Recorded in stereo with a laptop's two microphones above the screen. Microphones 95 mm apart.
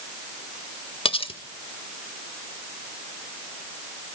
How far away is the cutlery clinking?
About 1.3 m.